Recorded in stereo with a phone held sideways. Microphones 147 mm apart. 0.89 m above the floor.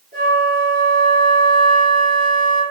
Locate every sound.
0.1 s a flute: 75° right (ahead or behind), 3 m